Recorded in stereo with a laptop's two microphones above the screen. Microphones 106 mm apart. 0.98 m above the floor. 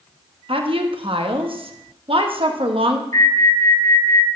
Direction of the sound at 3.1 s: 30° left (ahead or behind).